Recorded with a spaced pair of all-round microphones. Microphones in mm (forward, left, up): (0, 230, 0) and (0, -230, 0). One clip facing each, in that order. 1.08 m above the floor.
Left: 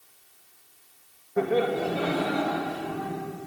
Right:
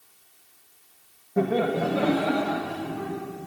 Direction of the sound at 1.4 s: 50° right (ahead or behind).